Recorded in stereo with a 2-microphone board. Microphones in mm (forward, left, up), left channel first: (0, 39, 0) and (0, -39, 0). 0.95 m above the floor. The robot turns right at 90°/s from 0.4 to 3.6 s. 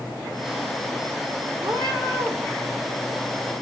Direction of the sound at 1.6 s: 110° right.